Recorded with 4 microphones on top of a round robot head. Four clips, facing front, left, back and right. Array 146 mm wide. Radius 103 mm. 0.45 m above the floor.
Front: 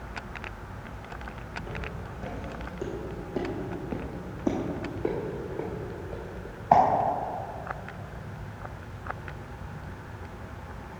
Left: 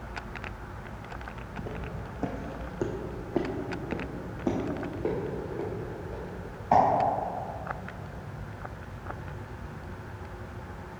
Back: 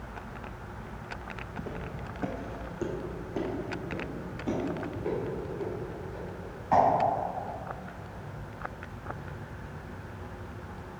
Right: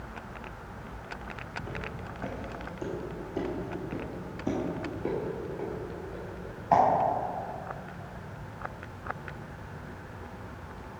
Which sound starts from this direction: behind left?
Footsteps, at 1.6 s.